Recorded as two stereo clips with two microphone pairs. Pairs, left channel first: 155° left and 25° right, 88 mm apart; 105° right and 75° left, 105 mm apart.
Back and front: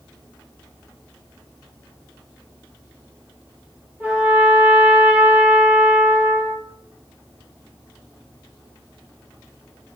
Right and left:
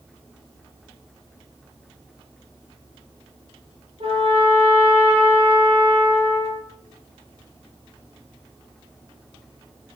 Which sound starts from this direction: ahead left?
A trumpet, at 4.0 s.